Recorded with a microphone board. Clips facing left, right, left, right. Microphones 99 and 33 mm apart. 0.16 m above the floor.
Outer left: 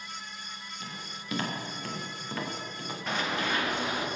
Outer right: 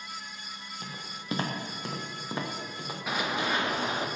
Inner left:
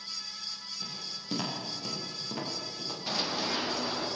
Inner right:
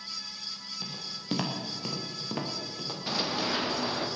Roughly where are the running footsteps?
Centre.